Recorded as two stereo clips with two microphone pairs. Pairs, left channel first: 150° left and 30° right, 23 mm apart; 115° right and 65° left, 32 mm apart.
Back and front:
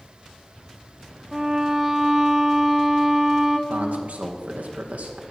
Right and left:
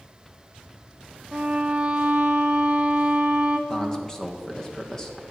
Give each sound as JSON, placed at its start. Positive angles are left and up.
{"t": 1.3, "sound": "a violin", "azimuth_deg": 25, "distance_m": 1.2}
{"t": 3.7, "sound": "a man speaking", "azimuth_deg": -40, "distance_m": 1.7}